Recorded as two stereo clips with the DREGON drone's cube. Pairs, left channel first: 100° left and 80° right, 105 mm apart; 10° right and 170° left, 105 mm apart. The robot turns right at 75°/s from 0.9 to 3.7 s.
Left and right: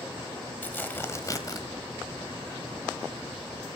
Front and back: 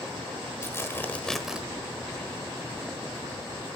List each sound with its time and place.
0.6 s tearing paper: 40° left, 1.2 m; by 1.6 s 95° left, 1.2 m